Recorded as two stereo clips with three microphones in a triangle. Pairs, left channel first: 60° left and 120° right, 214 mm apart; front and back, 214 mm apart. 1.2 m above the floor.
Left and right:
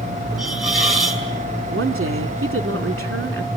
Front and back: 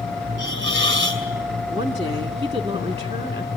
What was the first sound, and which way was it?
A hiss, 150° left.